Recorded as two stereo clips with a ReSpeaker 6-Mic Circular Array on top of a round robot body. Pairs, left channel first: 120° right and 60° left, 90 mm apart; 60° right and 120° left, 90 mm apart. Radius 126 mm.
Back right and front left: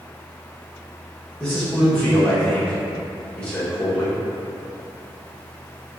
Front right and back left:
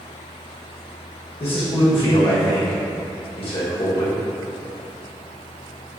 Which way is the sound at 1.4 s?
40° right.